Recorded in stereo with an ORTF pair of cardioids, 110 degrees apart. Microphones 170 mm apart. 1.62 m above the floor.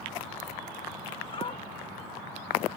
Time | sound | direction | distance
1.3 | a dog barking | 35° left | ?